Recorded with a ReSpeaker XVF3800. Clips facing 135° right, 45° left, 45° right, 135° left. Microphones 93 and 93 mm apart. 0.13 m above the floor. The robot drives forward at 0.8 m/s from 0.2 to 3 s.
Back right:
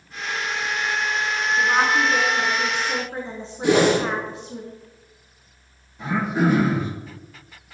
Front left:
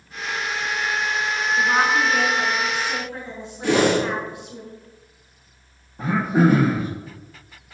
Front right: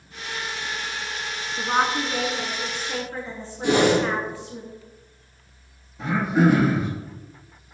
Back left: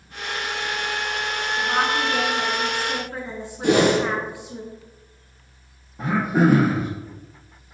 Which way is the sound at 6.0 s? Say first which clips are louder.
Front left 3 dB, back left 1 dB; 90° left.